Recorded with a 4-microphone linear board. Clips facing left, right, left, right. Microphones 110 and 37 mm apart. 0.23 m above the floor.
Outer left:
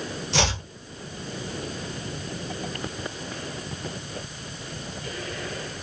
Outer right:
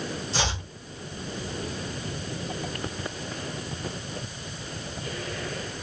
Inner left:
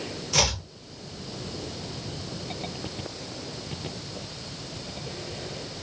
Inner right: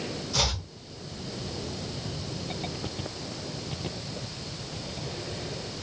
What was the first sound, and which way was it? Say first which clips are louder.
Chopping: outer left 5 dB, inner left 4 dB; 90° left.